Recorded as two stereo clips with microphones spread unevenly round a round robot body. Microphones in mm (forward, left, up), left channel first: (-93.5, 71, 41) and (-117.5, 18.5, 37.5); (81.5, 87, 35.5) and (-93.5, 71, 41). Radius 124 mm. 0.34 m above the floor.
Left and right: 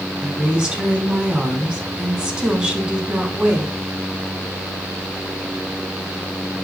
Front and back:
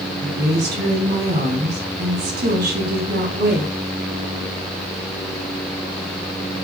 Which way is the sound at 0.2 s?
Straight behind.